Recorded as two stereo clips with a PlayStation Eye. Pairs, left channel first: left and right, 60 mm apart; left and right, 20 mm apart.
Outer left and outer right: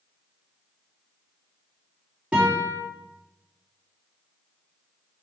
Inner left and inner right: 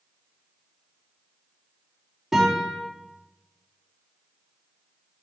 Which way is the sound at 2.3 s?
20° right (ahead or behind).